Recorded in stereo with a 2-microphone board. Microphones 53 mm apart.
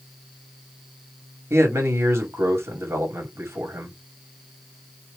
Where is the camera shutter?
No camera shutter in this recording.